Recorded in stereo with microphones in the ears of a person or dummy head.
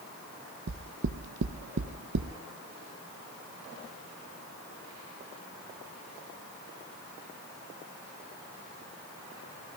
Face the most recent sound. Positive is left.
turn(degrees=-70)  # may be behind; listen again after turning